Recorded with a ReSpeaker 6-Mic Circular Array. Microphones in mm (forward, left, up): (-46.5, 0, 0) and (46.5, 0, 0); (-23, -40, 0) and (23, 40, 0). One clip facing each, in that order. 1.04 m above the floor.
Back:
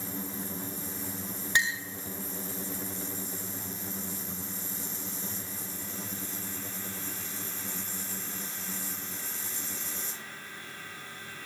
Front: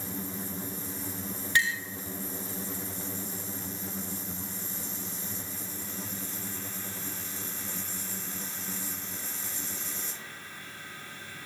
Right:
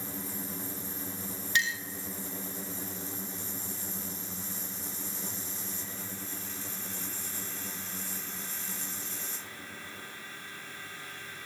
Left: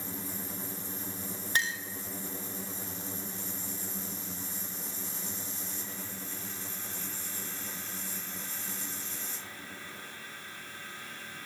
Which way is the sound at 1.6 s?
110° left.